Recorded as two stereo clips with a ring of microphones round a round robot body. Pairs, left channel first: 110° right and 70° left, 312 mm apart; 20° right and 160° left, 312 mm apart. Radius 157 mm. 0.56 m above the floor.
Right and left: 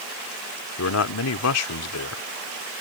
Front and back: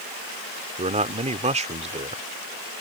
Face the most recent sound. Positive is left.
turn(degrees=-135)